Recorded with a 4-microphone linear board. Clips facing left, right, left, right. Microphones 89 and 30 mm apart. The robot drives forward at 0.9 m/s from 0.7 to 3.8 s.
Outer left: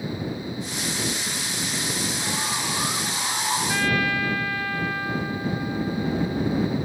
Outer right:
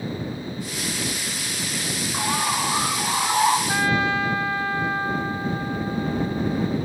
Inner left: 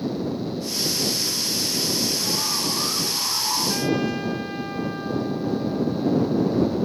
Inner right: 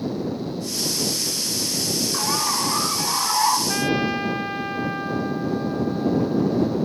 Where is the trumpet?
25° right (ahead or behind), 1.1 m.